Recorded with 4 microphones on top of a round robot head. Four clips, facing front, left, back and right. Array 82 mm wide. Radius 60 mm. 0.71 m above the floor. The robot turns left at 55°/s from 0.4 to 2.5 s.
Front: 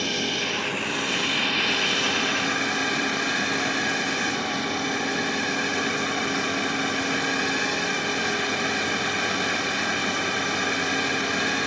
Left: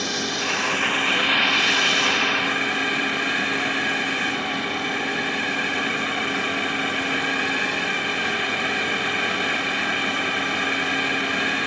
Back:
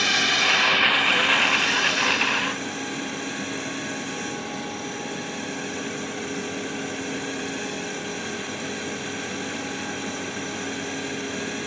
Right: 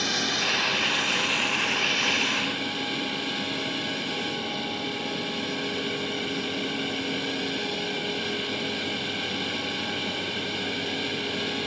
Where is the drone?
170° left; by 11.7 s 55° left.